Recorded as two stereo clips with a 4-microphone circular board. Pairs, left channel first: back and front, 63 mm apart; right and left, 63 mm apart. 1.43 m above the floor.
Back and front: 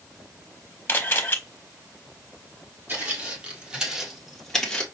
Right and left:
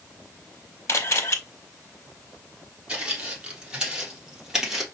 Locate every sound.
0.9 s a camera shutter: 125° right, 0.8 m
2.9 s footsteps: 35° left, 1.8 m; by 4.8 s 160° left, 1.4 m